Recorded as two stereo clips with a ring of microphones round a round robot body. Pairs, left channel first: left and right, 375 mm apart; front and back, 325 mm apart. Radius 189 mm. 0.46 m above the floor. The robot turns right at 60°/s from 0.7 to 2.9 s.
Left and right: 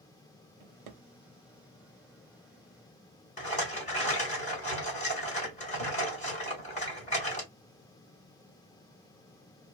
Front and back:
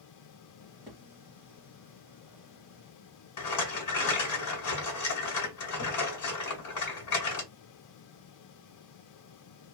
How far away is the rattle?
About 2 m.